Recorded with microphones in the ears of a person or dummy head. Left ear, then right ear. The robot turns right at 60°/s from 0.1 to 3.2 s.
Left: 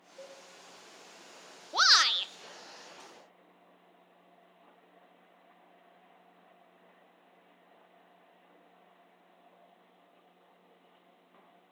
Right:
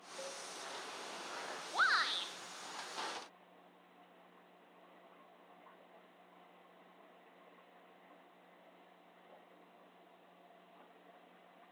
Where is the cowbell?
5° right (ahead or behind), 2.5 m; by 0.4 s 20° right (ahead or behind), 2.5 m.